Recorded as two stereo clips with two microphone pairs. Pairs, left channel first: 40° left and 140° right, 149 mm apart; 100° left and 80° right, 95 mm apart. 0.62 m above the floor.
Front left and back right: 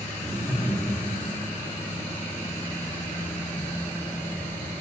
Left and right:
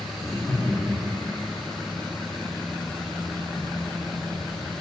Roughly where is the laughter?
Behind left.